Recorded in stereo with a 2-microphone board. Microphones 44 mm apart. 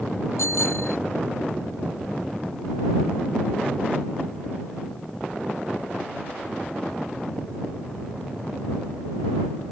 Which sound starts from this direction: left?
A bicycle bell, at 0.4 s.